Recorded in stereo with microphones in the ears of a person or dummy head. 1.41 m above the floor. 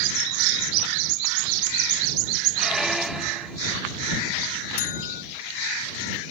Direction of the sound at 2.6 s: Centre (ahead or behind).